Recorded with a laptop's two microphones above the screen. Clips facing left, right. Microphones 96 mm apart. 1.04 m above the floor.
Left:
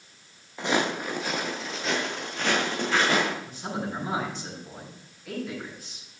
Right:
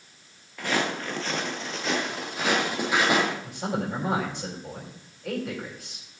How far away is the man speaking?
About 5 m.